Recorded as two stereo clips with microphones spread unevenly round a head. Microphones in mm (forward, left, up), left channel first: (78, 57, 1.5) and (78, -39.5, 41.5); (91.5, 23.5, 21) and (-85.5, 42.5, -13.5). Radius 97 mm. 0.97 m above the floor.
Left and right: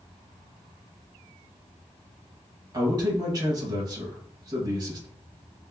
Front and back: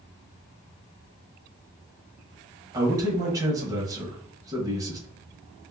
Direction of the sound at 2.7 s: 150° right.